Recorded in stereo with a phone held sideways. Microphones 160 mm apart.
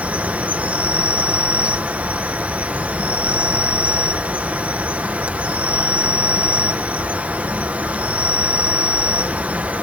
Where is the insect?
10° right (ahead or behind).